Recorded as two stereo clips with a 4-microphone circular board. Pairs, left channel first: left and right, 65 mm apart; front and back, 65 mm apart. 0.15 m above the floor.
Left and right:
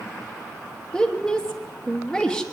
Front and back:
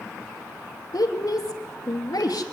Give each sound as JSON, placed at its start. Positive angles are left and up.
{"t": 0.9, "sound": "a woman speaking", "azimuth_deg": 10, "distance_m": 3.0}